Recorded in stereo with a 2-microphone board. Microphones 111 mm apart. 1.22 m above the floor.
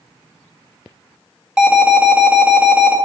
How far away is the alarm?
About 1.8 m.